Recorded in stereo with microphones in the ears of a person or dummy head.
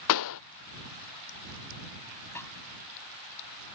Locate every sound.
0.1 s a pop: 70° left (ahead or behind)
2.4 s a snare drum: 5° left (ahead or behind)